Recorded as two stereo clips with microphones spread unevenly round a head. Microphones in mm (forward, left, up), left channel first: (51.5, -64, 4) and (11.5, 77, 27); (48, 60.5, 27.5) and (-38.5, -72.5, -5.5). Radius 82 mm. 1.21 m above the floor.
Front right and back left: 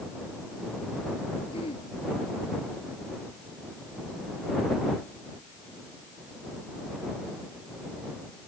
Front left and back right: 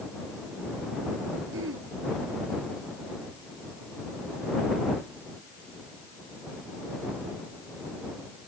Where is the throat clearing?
135° right.